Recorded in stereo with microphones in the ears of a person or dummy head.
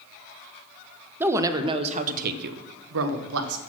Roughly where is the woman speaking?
Centre.